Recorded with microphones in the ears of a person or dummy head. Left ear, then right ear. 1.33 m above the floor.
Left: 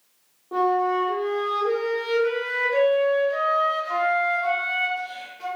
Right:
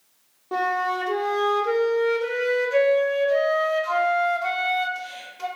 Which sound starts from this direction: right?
A flute, at 0.5 s.